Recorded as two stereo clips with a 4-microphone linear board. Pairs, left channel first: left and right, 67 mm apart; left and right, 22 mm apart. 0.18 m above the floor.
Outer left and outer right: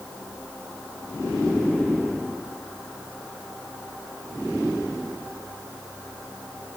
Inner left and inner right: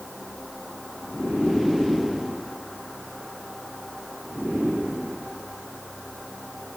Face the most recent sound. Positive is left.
No sound to turn to.